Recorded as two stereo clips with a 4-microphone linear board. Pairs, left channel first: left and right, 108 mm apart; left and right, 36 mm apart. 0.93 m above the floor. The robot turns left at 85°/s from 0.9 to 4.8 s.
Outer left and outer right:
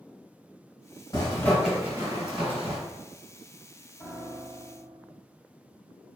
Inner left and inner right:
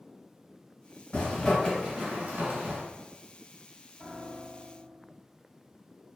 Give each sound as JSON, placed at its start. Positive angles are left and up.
{"t": 1.1, "sound": "a zipper", "side_deg": 40, "distance_m": 1.8}
{"t": 4.0, "sound": "a piano", "azimuth_deg": 20, "distance_m": 1.1}